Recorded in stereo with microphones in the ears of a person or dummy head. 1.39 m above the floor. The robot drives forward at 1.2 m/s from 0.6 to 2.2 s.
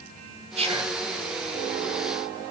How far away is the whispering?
About 0.7 m.